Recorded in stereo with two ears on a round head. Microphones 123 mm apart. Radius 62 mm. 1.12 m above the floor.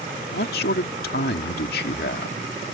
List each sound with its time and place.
0.3 s a man speaking: 75° left (ahead or behind)